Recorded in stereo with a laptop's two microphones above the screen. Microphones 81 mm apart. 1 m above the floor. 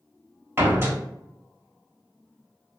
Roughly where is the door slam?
Right.